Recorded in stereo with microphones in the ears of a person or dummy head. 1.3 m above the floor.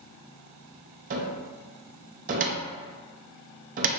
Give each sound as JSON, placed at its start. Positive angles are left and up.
{"t": 1.1, "sound": "a cupboard door", "side_deg": -35, "distance_m": 0.5}